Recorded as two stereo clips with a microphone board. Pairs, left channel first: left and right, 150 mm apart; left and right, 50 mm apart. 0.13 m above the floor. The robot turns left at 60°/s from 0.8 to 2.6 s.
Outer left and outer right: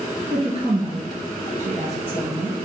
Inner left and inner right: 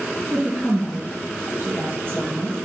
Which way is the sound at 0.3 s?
50° right.